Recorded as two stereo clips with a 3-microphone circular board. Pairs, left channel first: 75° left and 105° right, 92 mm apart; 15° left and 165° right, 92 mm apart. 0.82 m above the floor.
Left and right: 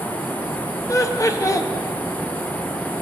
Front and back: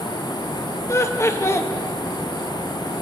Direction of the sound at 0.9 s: 55° left.